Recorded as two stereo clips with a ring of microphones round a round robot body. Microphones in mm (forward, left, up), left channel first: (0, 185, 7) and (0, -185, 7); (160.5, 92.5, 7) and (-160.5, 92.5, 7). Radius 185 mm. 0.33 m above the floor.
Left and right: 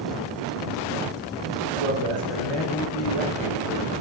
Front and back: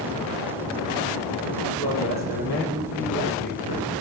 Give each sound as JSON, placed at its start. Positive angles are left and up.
{"t": 1.6, "sound": "a man speaking", "azimuth_deg": 140, "distance_m": 6.5}